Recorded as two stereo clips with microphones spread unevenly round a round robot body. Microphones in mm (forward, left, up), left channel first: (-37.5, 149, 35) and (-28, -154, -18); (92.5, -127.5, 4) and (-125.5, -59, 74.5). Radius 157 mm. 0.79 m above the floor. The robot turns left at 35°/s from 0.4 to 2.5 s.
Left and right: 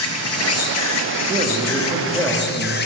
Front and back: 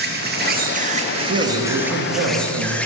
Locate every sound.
0.0 s an insect: 115° left, 0.7 m; by 2.9 s 40° left, 0.7 m
1.3 s a man speaking: 145° right, 1.7 m; by 2.8 s 175° left, 1.7 m